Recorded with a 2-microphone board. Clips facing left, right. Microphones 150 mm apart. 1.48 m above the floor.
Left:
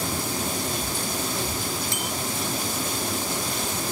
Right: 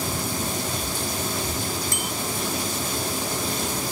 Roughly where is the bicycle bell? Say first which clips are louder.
Right 1 dB; right.